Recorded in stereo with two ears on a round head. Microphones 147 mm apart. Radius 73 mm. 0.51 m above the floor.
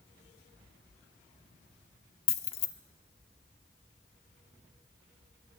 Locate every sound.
2.3 s keys jangling: 35° left (ahead or behind), 0.7 m